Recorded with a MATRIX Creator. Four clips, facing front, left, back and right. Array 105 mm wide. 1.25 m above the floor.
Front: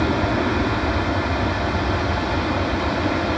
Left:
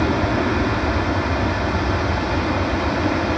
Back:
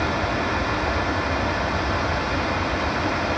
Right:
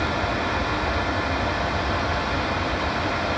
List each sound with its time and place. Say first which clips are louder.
0.0 s an aircraft: left 5 dB, front 3 dB; 50° left; by 3.4 s 55° left